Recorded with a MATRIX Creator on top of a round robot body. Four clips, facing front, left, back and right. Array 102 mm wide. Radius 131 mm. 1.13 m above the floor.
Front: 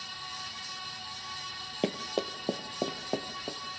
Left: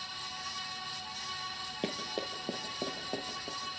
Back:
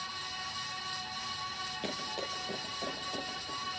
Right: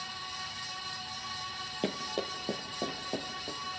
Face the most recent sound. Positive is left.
turn(degrees=0)